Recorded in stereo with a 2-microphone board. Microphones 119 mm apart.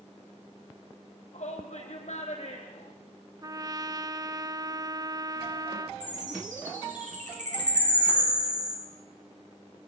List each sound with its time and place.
1.3 s a shout: 75° left (ahead or behind), 4.5 m
3.4 s a trumpet: 30° right (ahead or behind), 0.5 m
6.0 s a chime: 85° right, 6.5 m